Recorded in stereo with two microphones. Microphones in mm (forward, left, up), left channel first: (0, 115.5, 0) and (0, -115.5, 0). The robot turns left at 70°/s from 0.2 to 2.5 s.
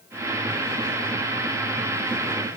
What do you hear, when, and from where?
Only background noise.